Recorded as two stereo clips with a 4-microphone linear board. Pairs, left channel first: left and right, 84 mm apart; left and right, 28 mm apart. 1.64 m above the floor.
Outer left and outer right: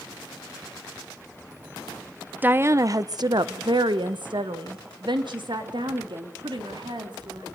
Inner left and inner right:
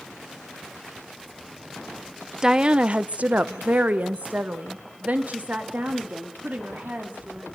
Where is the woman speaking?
20° right (ahead or behind), 0.7 m; by 7.5 s 65° right (ahead or behind), 3.5 m.